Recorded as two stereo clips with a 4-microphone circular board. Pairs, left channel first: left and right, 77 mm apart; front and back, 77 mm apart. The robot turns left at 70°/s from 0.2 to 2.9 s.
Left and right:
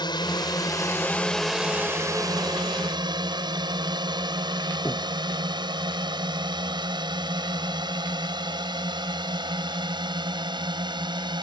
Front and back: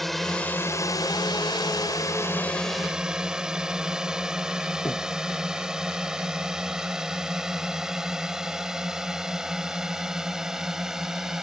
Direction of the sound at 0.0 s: 90° left.